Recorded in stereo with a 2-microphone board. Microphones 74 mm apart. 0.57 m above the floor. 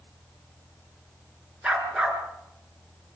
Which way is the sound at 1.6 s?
10° right (ahead or behind).